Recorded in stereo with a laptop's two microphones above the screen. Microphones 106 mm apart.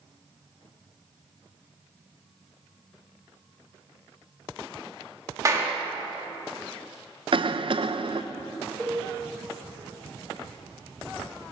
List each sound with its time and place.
5.5 s a clap: 30° right (ahead or behind), 1.3 m
7.3 s a cough: 55° right (ahead or behind), 0.5 m
8.8 s a cowbell: 20° right (ahead or behind), 5.5 m